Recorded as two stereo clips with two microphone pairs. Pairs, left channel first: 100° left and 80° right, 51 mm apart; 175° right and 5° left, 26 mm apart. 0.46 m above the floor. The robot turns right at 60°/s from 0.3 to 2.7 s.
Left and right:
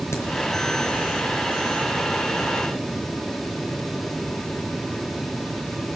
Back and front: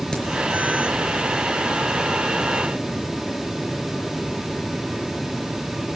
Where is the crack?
130° left, 5 m.